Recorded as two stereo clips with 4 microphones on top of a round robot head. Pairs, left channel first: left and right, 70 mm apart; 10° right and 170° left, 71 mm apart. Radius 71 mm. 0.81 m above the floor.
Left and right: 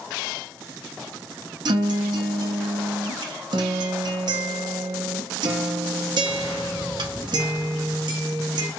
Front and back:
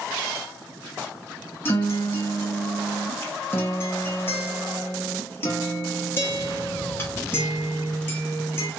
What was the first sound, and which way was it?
A guitar, 70° right.